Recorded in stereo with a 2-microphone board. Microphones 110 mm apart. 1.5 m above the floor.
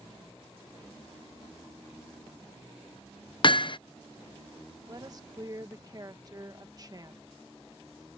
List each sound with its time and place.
3.4 s hammering: 45° left (ahead or behind)
4.9 s a woman speaking: 35° right (ahead or behind)